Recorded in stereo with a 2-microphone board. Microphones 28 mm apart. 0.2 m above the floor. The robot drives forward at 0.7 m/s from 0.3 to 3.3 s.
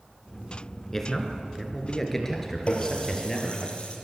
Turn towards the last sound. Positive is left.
turn(degrees=35)  # may be behind; listen again after turning